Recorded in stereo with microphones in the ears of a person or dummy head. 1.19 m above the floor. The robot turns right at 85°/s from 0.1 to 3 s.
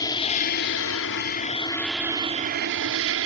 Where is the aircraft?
25° left; by 3.3 s 90° right.